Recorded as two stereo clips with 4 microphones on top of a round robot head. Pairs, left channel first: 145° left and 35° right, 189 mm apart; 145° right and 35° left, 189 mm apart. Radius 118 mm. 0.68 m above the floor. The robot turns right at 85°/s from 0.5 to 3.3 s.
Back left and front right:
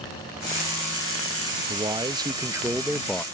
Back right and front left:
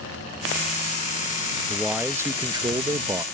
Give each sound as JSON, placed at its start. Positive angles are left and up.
{"t": 1.7, "sound": "a man speaking", "azimuth_deg": -60}